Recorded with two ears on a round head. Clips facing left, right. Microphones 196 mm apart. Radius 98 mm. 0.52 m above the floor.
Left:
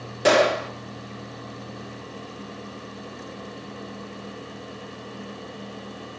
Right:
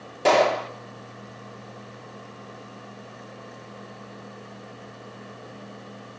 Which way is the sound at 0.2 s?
15° left (ahead or behind).